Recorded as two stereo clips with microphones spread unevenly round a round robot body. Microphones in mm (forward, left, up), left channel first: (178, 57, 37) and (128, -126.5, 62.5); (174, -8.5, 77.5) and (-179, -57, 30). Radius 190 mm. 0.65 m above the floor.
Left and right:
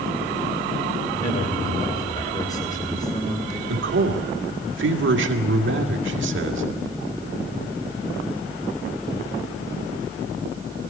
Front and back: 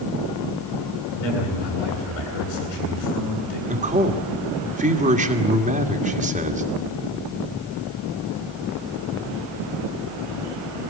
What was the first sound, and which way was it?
A man speaking, 25° left.